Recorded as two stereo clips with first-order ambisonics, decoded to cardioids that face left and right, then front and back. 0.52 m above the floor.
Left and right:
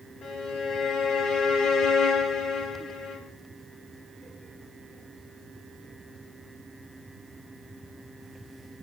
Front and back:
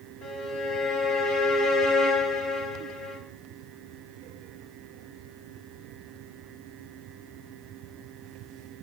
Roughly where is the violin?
Ahead left.